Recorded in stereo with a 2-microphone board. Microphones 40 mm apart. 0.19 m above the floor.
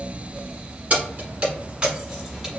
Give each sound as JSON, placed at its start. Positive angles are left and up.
{"t": 0.9, "sound": "keys jangling", "side_deg": -40, "distance_m": 1.6}